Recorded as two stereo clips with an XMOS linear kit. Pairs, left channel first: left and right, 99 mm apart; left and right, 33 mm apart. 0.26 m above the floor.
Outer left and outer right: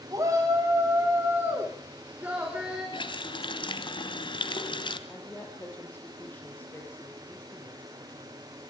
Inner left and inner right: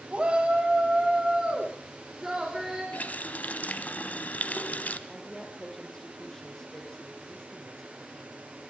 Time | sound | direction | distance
0.1 | a shout | 35° right (ahead or behind) | 2.0 m
2.9 | a running tap | 50° left (ahead or behind) | 1.4 m
5.1 | a woman speaking | 15° left (ahead or behind) | 7 m